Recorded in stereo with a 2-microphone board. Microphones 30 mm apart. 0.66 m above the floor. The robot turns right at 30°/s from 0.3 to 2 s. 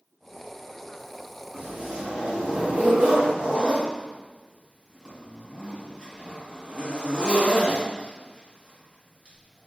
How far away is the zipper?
About 3 m.